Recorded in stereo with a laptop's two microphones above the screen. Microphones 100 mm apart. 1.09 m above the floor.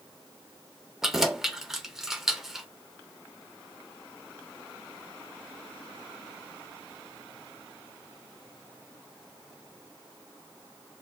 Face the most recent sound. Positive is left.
turn(degrees=-5)  # may be behind; listen again after turning